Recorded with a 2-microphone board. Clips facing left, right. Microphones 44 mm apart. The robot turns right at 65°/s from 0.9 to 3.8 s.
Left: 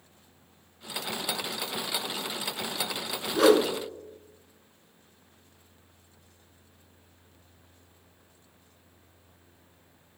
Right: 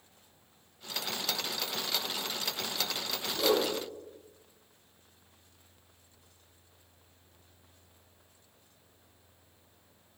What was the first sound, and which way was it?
A whoosh, 85° left.